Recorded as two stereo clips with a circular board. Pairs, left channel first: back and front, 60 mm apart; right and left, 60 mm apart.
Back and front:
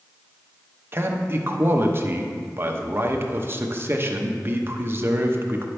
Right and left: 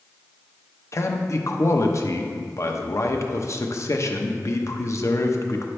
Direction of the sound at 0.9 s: 50° right.